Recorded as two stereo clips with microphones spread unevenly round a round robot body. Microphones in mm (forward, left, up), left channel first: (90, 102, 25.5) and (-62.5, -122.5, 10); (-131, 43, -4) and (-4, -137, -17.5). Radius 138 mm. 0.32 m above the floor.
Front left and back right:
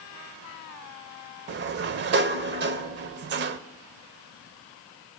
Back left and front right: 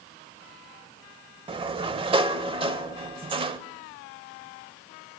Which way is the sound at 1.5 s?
105° right.